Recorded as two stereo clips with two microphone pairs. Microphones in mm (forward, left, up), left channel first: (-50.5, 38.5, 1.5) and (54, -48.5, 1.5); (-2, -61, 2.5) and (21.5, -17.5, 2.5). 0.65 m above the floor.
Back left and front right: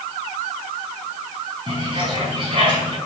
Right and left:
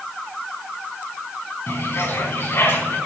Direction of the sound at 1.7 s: 90° right.